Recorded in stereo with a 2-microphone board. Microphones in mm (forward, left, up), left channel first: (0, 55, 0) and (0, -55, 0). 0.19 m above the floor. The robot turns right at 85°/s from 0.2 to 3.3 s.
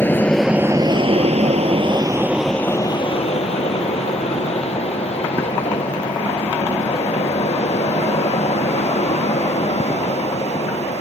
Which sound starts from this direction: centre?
An aircraft, at 0.0 s.